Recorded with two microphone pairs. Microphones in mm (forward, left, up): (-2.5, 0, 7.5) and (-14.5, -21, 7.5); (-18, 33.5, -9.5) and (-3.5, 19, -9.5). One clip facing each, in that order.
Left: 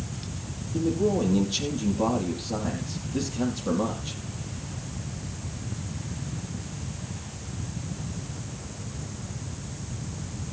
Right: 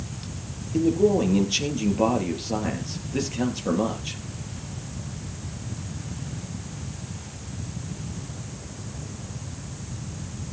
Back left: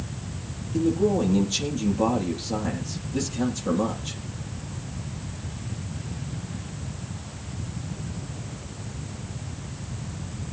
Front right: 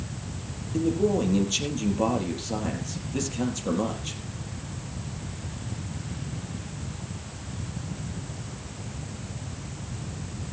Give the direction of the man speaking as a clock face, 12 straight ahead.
4 o'clock.